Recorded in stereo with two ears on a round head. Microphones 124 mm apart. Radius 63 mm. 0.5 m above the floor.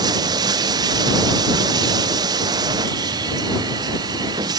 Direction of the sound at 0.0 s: 30° right (ahead or behind).